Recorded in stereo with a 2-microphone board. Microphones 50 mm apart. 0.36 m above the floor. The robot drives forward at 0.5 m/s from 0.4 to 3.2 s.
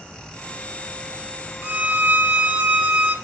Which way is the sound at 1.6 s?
30° right (ahead or behind).